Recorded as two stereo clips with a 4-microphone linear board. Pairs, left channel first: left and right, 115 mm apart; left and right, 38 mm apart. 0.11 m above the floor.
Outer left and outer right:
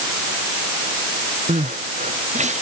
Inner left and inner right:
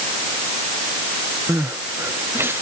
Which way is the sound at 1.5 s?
75° right (ahead or behind).